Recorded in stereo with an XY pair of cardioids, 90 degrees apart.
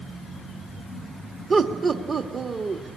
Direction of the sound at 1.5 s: 55° right.